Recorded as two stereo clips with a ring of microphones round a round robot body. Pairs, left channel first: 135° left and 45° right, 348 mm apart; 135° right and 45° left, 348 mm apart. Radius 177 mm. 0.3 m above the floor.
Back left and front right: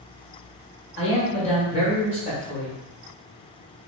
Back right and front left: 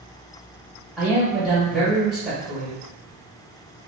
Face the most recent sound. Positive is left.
turn(degrees=135)